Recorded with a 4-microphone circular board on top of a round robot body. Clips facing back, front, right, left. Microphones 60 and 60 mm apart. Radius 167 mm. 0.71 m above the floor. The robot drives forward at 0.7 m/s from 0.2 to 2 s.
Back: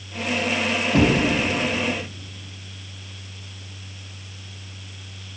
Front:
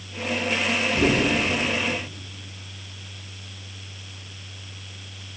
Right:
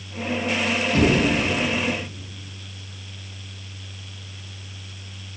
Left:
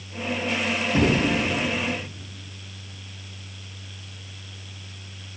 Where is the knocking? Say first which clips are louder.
Back 4 dB, right 2 dB; 165° left, 4 m.